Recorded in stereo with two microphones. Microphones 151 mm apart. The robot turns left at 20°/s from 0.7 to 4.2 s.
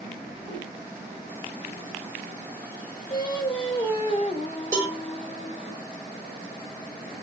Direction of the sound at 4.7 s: 20° right (ahead or behind).